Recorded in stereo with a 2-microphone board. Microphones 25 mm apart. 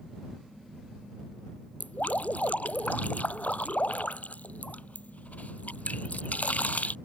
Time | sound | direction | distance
1.8 | dripping | 75° left (ahead or behind) | ?